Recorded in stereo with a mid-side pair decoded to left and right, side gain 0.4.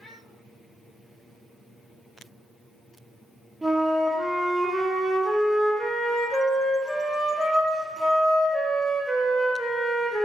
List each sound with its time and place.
3.6 s a flute: 15° right, 0.5 m